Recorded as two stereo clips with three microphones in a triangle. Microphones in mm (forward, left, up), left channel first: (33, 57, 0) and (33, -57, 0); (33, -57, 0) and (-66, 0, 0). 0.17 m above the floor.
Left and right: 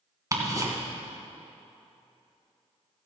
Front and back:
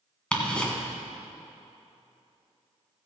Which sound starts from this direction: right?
Ticking, at 0.3 s.